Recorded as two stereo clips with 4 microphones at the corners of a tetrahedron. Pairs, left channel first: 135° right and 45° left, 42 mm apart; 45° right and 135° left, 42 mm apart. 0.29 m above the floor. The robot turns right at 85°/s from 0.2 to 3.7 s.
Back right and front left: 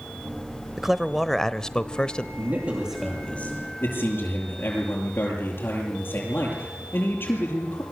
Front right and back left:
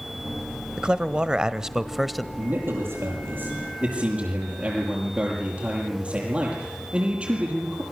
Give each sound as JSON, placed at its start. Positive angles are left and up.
{"t": 0.8, "sound": "a man speaking", "azimuth_deg": 110, "distance_m": 1.0}
{"t": 2.4, "sound": "a man speaking", "azimuth_deg": 80, "distance_m": 8.0}